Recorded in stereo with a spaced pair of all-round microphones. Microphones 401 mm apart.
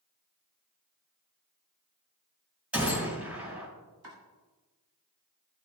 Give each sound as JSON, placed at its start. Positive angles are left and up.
{"t": 2.7, "sound": "a gunshot", "side_deg": -5, "distance_m": 5.0}
{"t": 4.0, "sound": "chopping", "side_deg": -60, "distance_m": 2.5}